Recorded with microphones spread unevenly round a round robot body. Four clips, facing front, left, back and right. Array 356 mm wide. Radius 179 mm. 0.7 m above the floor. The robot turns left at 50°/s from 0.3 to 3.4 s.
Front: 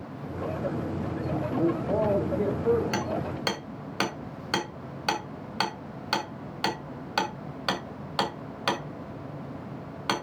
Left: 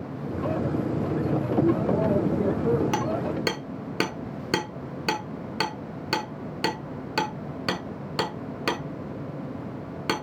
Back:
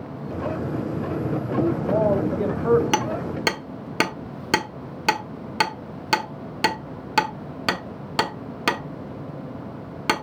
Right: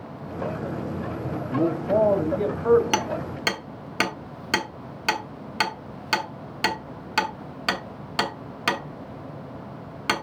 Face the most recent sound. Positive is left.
turn(degrees=150)